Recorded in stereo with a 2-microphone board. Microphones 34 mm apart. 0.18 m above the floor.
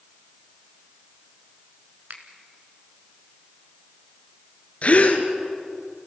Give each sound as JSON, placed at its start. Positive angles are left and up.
{"t": 2.1, "sound": "a finger snap", "side_deg": -55, "distance_m": 1.8}
{"t": 4.8, "sound": "a gasp", "side_deg": 50, "distance_m": 1.7}